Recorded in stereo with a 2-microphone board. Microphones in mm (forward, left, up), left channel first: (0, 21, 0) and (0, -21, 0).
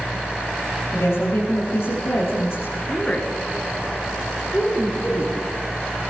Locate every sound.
0.9 s a woman speaking: 80° left, 8.5 m
2.9 s a woman speaking: 25° left (ahead or behind), 3.5 m